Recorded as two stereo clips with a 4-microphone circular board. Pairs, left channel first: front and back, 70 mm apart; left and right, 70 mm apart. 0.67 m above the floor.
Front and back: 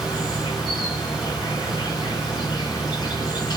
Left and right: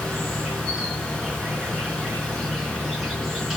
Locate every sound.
0.0 s an insect: straight ahead, 3 m